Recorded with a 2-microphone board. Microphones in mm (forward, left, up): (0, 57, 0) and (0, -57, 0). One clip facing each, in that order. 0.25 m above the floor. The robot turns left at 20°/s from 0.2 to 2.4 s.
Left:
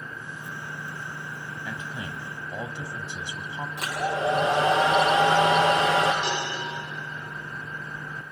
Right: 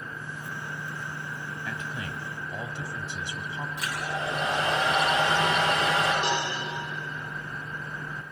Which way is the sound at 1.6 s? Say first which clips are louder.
Even; 15° left (ahead or behind).